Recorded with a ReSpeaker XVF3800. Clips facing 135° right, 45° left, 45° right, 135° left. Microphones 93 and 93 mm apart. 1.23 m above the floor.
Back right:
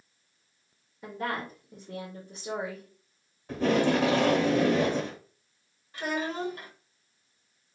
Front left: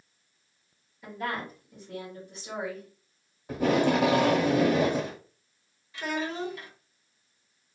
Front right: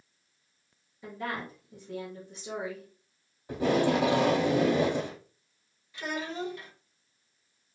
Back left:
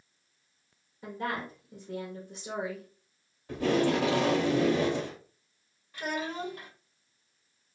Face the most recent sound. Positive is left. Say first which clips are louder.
# even, back left 1 dB
turn(degrees=180)